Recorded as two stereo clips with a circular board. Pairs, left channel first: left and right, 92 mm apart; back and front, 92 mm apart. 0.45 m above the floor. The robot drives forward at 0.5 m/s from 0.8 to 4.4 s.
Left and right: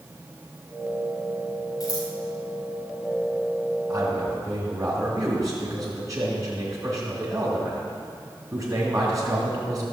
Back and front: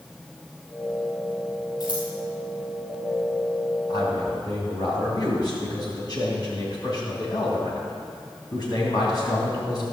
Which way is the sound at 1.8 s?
135° left.